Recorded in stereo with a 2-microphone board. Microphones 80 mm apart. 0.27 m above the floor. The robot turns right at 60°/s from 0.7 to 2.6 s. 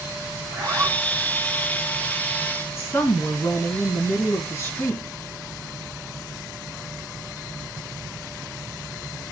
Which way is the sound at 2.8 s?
35° left (ahead or behind).